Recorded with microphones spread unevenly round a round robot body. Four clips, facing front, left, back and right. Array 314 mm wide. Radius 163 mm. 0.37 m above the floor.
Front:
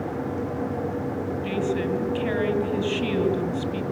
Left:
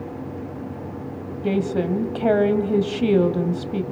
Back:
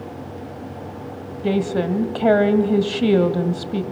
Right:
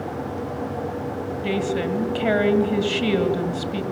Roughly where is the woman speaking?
Behind.